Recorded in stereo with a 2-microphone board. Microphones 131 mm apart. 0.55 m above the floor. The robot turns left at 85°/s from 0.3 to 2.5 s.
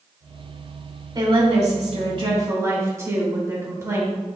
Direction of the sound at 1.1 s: 40° right.